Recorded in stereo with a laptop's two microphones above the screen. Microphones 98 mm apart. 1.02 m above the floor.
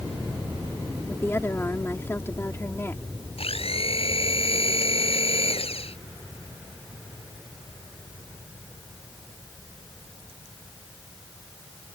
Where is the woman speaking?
25° left (ahead or behind).